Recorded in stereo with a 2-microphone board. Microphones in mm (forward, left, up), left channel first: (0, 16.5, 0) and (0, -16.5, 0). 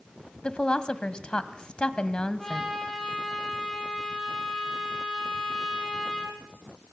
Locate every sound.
0.4 s a woman speaking: 30° left (ahead or behind), 1.4 m
2.4 s a trumpet: 5° left (ahead or behind), 9 m